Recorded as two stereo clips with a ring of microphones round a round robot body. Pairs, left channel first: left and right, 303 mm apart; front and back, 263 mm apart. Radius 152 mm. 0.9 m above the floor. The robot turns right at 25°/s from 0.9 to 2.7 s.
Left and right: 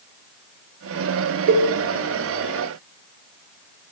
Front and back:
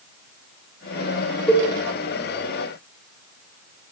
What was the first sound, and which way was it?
A cowbell, 85° right.